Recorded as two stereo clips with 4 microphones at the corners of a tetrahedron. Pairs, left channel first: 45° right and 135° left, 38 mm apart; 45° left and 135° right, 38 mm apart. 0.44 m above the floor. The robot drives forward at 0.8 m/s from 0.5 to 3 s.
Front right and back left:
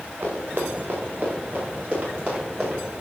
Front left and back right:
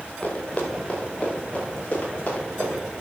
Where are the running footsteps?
110° left, 4.5 m; by 2.8 s 90° left, 6.5 m.